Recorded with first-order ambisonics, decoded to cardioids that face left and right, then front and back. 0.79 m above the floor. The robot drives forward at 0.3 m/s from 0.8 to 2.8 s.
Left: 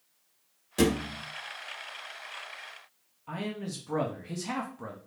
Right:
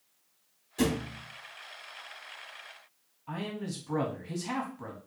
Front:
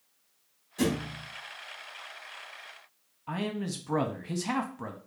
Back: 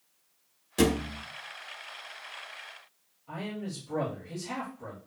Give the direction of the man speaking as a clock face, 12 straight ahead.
12 o'clock.